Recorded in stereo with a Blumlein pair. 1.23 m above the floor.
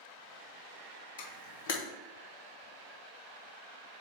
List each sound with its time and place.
1.2 s a camera shutter: 55° left, 1.0 m